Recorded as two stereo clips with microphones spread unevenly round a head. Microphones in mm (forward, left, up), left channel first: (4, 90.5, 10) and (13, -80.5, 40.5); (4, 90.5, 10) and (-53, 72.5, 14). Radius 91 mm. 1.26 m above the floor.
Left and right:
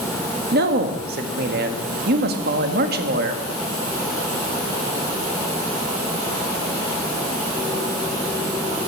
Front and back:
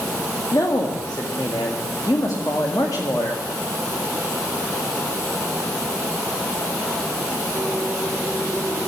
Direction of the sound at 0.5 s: 55° right.